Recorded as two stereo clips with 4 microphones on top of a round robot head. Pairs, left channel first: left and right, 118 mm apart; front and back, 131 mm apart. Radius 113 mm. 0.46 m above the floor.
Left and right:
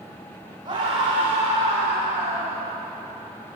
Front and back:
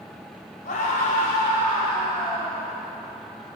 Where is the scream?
35° right, 4.5 m; by 2.7 s 65° right, 4 m.